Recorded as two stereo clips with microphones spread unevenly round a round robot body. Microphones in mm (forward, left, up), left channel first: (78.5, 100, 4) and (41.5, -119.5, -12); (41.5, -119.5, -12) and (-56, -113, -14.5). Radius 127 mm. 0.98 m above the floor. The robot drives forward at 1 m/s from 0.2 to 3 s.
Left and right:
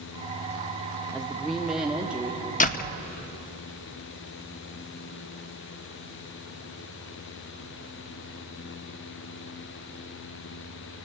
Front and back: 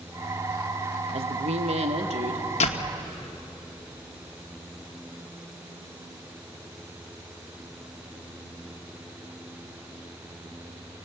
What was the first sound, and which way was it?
A woman speaking, 170° left.